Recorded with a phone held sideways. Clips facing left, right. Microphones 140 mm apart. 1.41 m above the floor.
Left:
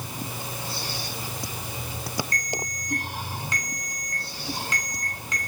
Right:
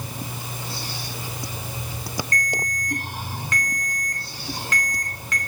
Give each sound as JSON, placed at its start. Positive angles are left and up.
{"t": 2.3, "sound": "a ringtone", "side_deg": 15, "distance_m": 2.0}